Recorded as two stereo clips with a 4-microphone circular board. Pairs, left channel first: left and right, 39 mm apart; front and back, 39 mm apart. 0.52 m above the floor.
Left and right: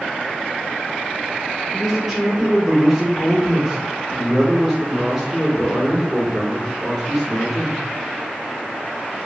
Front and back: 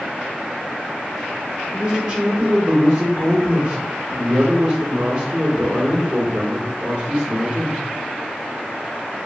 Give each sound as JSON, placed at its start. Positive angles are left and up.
{"t": 1.7, "sound": "a man speaking", "azimuth_deg": -165, "distance_m": 1.1}